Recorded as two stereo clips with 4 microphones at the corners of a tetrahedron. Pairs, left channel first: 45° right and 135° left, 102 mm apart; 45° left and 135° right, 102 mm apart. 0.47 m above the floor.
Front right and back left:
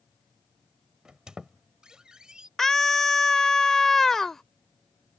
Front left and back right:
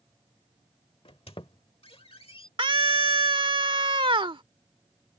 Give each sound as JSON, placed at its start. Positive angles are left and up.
{"t": 1.1, "sound": "a squeak", "azimuth_deg": 55}
{"t": 2.6, "sound": "a scream", "azimuth_deg": -130}